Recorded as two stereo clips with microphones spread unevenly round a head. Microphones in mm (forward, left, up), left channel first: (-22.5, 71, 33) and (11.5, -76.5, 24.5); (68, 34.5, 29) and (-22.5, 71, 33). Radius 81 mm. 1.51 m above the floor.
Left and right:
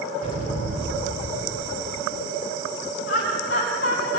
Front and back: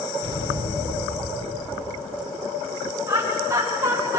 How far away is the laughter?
About 9.5 m.